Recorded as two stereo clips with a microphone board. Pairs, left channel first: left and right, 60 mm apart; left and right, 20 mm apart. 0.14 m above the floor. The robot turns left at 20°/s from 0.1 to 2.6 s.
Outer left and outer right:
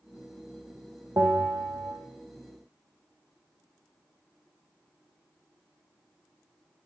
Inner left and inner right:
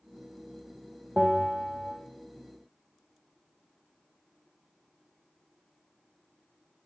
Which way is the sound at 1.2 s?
65° right (ahead or behind).